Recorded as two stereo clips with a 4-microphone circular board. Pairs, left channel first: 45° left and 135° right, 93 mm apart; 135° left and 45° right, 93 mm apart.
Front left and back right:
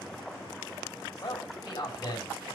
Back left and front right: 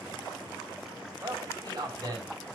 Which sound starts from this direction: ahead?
A man speaking, at 1.2 s.